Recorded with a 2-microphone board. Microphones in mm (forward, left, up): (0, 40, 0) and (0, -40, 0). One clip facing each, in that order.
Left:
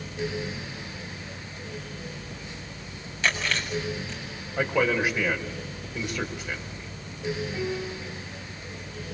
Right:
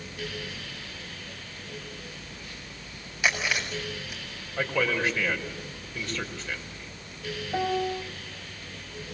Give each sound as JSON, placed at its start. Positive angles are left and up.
{"t": 3.2, "sound": "chewing", "side_deg": -10, "distance_m": 7.5}
{"t": 4.6, "sound": "a man speaking", "side_deg": 15, "distance_m": 5.0}
{"t": 7.5, "sound": "a piano", "side_deg": -75, "distance_m": 1.9}